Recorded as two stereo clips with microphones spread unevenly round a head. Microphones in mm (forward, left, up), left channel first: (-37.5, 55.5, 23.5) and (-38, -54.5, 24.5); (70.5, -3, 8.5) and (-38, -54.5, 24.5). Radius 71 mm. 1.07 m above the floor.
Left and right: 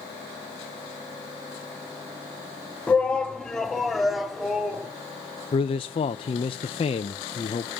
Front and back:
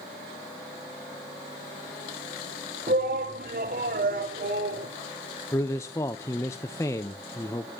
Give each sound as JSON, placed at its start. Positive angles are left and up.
{"t": 2.9, "sound": "a shout", "azimuth_deg": 170, "distance_m": 2.5}
{"t": 5.5, "sound": "a man speaking", "azimuth_deg": 80, "distance_m": 1.0}